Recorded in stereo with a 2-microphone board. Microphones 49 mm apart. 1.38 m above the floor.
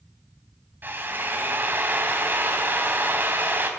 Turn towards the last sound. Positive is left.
turn(degrees=-45)  # may be behind; listen again after turning